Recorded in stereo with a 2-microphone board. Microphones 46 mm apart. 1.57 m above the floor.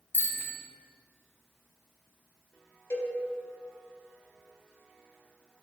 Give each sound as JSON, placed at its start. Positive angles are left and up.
{"t": 0.1, "sound": "a bicycle bell", "side_deg": 45, "distance_m": 3.0}
{"t": 2.9, "sound": "a cowbell", "side_deg": 65, "distance_m": 3.0}